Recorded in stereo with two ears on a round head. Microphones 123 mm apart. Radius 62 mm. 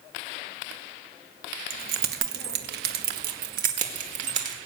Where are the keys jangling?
75° right (ahead or behind), 1.2 m; by 4.6 s 50° right (ahead or behind), 2.5 m.